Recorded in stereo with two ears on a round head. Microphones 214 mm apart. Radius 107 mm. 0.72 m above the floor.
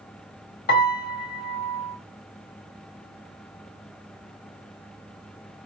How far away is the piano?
About 1.9 m.